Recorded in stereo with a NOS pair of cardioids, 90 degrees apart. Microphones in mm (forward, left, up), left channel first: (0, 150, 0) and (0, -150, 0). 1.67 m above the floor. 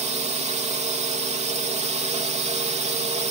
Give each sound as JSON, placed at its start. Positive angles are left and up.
{"t": 0.0, "sound": "a drone", "azimuth_deg": -20}